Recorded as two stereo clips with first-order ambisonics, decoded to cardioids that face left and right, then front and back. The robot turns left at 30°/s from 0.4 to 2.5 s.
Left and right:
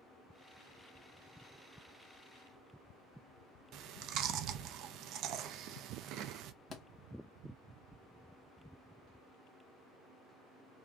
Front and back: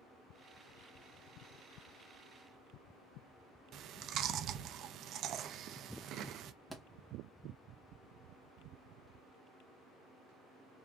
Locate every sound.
3.7 s chewing: 130° right, 0.5 m
6.7 s a thud: 90° left, 0.9 m